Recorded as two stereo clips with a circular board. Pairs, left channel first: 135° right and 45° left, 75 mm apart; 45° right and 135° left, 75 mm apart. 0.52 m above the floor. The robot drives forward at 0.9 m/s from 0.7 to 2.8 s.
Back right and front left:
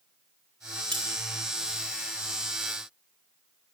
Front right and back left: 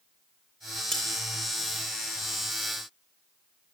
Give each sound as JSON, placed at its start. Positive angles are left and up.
{"t": 0.9, "sound": "cutlery clinking", "azimuth_deg": 40, "distance_m": 7.0}